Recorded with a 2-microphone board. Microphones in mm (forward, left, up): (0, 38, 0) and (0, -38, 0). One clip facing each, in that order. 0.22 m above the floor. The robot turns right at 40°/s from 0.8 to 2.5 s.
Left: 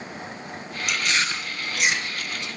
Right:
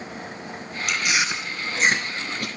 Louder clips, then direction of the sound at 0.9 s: Right 1 dB; centre (ahead or behind).